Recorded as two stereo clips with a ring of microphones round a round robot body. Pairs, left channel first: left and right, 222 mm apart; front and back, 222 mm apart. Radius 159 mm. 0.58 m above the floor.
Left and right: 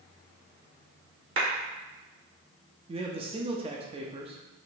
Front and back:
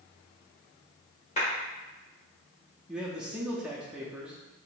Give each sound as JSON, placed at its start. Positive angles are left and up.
{"t": 1.4, "sound": "a clap", "azimuth_deg": -65, "distance_m": 1.7}
{"t": 2.9, "sound": "a man speaking", "azimuth_deg": -100, "distance_m": 0.6}